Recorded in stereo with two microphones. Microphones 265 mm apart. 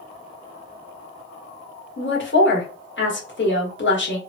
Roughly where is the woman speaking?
Left.